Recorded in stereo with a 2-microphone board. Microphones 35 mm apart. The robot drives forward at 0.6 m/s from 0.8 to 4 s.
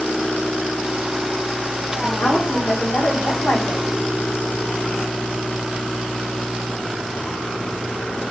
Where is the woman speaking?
75° left (ahead or behind), 4.5 m; by 3.8 s 85° left, 4.5 m.